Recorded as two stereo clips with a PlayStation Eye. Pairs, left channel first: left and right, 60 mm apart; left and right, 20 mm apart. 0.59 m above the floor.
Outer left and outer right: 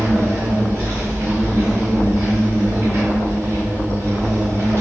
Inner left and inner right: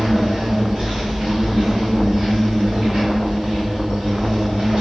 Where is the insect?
60° right (ahead or behind), 1.5 m.